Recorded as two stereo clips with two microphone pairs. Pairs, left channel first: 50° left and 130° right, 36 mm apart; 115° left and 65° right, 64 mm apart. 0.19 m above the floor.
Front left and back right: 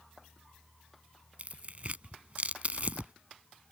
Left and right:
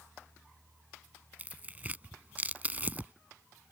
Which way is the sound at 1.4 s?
115° right.